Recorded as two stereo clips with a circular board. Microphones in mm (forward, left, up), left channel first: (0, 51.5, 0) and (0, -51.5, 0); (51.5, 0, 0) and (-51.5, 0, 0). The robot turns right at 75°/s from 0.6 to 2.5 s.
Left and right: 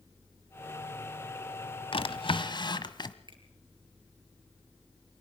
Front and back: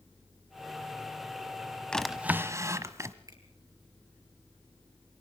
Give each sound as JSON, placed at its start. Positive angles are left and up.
{"t": 1.9, "sound": "a drawer", "azimuth_deg": 80, "distance_m": 1.0}
{"t": 3.3, "sound": "a finger snap", "azimuth_deg": -130, "distance_m": 4.0}